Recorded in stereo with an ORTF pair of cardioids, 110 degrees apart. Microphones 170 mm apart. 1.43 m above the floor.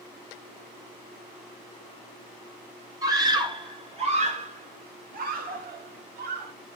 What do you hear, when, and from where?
3.0 s a scream: 20° right, 3 m; by 6.5 s 75° right, 3.5 m